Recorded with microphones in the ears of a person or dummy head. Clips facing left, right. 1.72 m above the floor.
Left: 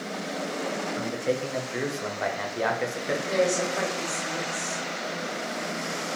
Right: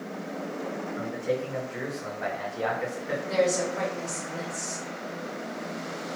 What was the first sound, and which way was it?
A man speaking, 65° left (ahead or behind).